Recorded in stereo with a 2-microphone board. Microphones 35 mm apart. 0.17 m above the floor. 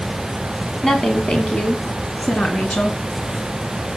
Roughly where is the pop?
No pop in this recording.